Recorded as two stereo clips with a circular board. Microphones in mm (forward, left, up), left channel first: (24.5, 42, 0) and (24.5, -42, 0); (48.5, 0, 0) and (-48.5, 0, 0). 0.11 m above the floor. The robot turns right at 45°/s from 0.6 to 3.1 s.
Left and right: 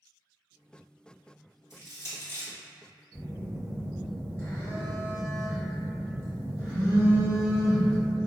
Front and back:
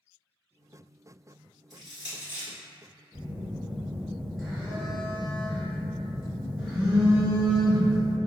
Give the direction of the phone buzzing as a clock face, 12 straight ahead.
9 o'clock.